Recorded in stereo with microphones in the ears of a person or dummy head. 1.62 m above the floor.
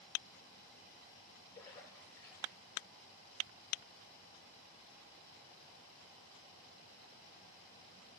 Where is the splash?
20° left (ahead or behind), 2.5 m.